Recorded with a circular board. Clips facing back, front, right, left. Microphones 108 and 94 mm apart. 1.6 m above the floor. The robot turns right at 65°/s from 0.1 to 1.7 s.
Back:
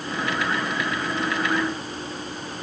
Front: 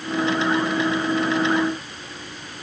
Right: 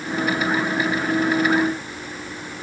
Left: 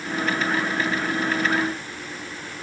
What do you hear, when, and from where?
Only background noise.